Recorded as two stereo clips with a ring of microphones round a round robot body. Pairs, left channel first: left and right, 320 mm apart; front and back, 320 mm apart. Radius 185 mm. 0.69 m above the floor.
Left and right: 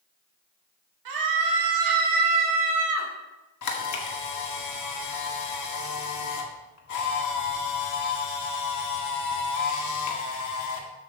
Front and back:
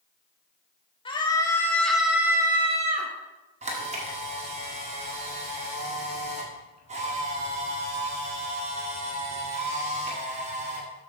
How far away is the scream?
About 3 m.